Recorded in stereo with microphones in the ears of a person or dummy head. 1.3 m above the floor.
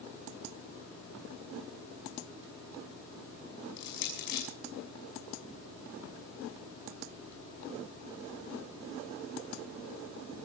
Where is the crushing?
60° left (ahead or behind), 5.5 m.